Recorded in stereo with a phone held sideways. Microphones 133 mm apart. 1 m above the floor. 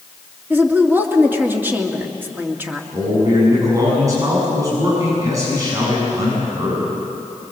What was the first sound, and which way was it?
A woman speaking, 15° right (ahead or behind).